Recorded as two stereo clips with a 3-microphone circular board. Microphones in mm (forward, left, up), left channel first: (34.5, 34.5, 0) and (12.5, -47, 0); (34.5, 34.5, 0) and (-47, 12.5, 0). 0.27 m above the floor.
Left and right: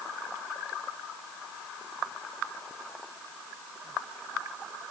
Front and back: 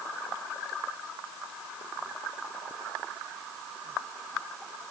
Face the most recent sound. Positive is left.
No sound to turn to.